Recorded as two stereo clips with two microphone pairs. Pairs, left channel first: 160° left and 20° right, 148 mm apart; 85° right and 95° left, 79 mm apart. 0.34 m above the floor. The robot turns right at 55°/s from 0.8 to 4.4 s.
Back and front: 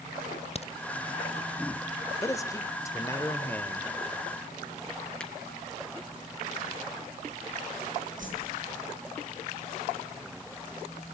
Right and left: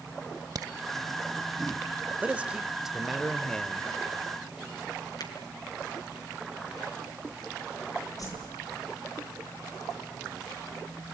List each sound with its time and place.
0.6 s a crack: 125° left, 0.9 m
2.2 s a man speaking: 140° left, 1.0 m; by 3.9 s 125° right, 1.0 m
5.2 s a finger snap: 115° right, 3 m
8.2 s a whoosh: 45° right, 9.5 m